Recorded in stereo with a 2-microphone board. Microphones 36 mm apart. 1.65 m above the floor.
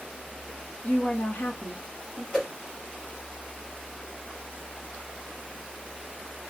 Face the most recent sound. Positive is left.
turn(degrees=15)  # may be behind; listen again after turning